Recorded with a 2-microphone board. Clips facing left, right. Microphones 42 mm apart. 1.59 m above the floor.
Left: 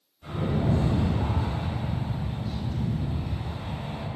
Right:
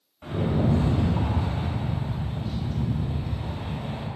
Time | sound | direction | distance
0.2 | a rattle | 80° right | 0.9 m